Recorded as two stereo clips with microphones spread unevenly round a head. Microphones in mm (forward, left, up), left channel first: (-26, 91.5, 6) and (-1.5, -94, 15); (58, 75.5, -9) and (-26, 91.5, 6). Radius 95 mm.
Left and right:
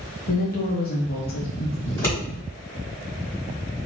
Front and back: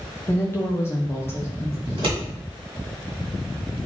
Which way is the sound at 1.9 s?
175° left.